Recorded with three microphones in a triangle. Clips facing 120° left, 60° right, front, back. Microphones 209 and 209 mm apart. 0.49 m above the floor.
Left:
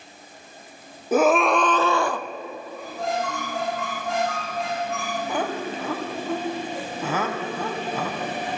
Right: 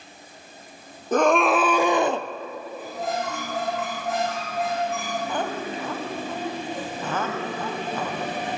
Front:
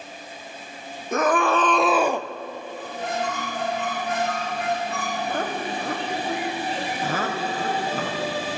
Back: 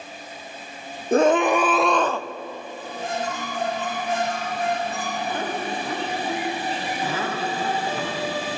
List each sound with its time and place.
1.1 s a scream: 165° right, 0.8 m; by 2.3 s 40° right, 0.7 m
2.8 s a squeak: 25° left, 8 m
5.3 s laughter: 40° left, 4 m